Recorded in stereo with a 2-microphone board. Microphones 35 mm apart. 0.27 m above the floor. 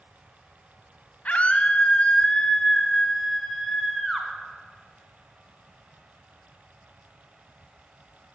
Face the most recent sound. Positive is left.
turn(degrees=-5)  # may be behind; listen again after turning